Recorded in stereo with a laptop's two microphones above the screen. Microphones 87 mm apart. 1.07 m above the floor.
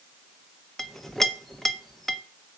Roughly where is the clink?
Centre.